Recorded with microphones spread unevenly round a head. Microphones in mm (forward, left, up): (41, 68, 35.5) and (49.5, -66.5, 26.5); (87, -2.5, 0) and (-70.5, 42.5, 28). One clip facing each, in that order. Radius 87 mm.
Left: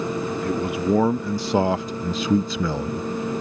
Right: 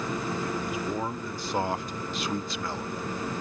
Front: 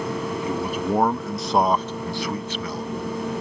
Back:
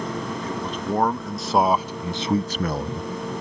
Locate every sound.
0.4 s a man speaking: 65° left; by 3.4 s 165° left